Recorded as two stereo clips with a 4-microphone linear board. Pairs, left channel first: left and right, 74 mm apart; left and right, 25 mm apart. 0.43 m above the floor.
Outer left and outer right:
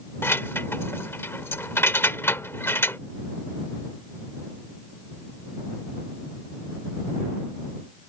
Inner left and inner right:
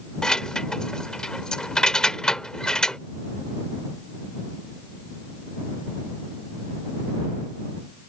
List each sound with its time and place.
0.2 s keys jangling: 35° left (ahead or behind)